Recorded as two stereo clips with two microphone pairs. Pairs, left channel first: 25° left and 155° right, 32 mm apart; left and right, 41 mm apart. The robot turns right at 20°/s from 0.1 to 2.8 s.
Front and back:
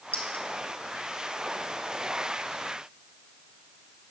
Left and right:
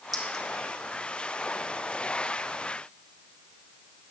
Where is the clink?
5° right, 2 m; by 0.5 s 5° left, 2 m.